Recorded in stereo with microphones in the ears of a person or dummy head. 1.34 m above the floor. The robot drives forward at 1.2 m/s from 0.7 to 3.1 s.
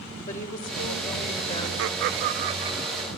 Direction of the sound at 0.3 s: 45° left (ahead or behind).